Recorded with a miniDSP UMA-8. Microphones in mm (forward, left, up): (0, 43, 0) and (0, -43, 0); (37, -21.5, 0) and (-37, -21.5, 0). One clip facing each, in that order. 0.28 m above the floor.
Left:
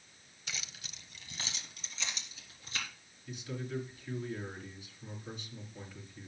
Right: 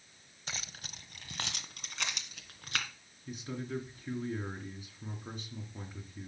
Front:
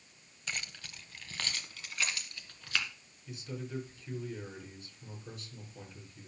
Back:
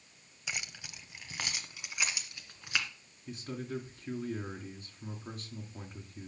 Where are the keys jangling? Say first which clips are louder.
Right 2 dB, even; 105° right, 0.8 m; by 2.9 s 110° right, 2.5 m.